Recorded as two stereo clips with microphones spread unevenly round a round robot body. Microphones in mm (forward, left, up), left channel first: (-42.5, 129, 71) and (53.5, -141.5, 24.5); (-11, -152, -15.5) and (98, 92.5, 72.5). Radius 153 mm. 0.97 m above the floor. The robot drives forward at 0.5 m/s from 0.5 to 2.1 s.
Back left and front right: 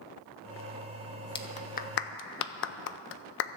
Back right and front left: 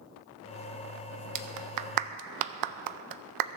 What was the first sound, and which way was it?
A clap, 35° left.